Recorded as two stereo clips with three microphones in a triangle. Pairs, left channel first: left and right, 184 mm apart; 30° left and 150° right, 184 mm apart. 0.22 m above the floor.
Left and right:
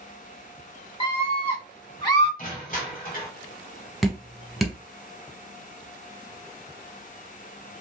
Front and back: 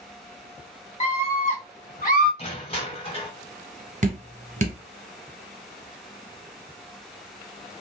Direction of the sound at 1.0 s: 50° left.